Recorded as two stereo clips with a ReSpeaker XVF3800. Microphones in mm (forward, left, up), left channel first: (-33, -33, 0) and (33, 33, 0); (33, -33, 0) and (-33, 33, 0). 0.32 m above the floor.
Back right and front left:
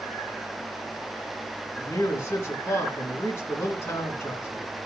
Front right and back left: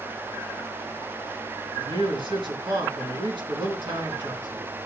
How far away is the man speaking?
About 4 m.